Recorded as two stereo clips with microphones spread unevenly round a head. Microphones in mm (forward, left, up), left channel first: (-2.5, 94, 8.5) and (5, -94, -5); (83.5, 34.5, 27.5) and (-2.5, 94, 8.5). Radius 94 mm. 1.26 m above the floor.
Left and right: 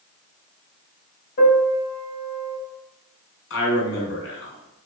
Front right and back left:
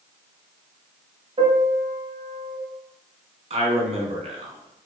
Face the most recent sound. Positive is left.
turn(degrees=115)